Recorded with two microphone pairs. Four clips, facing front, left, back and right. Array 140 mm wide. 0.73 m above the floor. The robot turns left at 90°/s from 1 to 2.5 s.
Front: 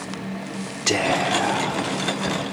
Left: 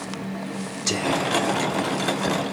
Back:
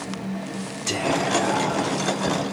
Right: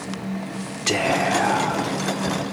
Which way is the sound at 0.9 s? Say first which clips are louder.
Right 3 dB, front 2 dB; 25° right.